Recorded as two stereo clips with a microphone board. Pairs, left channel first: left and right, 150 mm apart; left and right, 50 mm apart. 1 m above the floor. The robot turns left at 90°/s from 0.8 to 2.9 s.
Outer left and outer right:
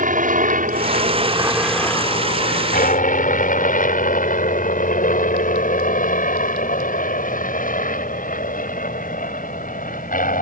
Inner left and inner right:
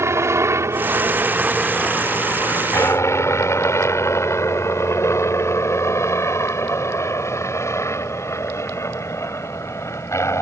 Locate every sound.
0.0 s a helicopter: 60° right (ahead or behind); by 10.4 s 65° left (ahead or behind)